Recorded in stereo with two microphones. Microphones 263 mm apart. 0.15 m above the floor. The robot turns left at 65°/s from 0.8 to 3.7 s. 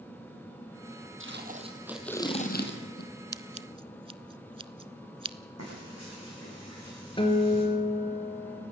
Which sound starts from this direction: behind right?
Tape being pulled, at 1.2 s.